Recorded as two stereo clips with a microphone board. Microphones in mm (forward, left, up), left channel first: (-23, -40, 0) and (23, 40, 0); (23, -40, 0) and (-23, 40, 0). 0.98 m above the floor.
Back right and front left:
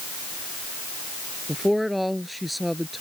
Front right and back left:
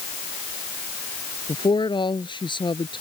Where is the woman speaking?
30° right.